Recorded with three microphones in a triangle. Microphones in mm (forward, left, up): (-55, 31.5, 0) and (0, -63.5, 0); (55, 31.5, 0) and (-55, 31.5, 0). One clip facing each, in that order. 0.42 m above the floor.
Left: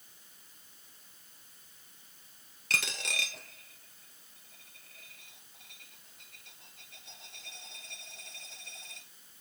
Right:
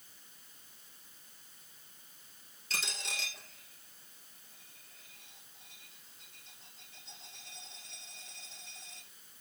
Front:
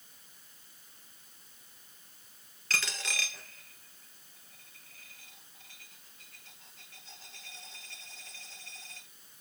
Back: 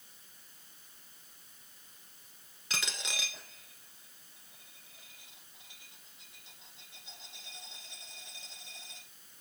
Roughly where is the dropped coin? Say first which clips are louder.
Left 5 dB, front 3 dB; left.